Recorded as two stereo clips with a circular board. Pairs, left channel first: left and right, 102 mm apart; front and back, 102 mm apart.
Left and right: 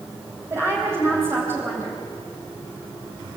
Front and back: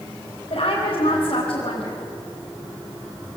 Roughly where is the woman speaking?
Ahead right.